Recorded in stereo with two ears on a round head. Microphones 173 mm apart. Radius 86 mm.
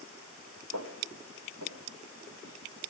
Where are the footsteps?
75° right (ahead or behind), 5 m; by 2.5 s 70° right (ahead or behind), 6.5 m.